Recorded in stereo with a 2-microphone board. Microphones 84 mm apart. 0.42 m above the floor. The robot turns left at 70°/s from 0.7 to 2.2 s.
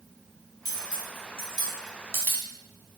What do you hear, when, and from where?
0.7 s cutlery clinking: 50° left (ahead or behind), 1.6 m; by 2.5 s 25° left (ahead or behind), 1.6 m